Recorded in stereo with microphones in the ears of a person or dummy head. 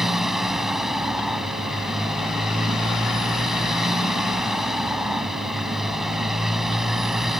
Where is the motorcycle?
5° right (ahead or behind).